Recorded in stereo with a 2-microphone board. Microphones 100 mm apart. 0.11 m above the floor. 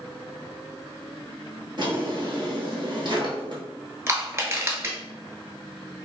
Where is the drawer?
50° right (ahead or behind), 1.0 m.